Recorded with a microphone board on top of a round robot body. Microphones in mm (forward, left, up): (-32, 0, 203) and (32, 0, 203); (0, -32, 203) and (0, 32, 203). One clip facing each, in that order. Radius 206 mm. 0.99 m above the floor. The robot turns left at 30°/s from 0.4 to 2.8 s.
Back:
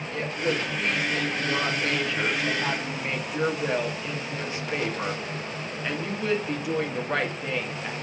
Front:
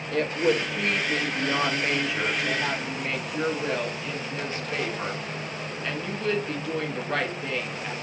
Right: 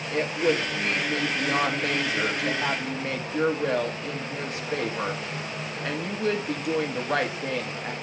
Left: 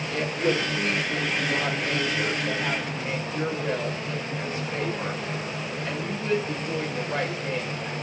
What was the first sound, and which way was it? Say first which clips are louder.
A woman speaking: front 4 dB, right 1 dB; 30° right.